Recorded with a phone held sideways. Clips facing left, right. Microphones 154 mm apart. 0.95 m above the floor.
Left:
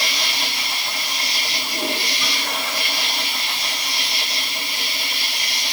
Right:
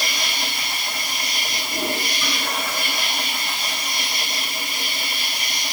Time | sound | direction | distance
0.0 | an insect | 80° left | 4.5 m